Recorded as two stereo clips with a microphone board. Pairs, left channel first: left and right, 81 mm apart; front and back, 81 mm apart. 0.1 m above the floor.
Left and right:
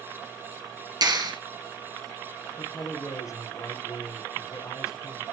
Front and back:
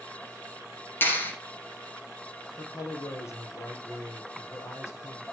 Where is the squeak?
No squeak in this recording.